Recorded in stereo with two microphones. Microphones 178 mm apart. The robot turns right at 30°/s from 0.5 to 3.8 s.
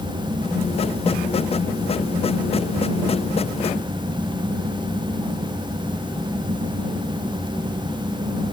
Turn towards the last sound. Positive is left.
No sound to turn to.